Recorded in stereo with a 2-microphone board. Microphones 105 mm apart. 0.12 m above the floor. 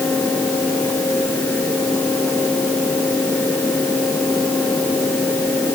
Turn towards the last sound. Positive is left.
No sound to turn to.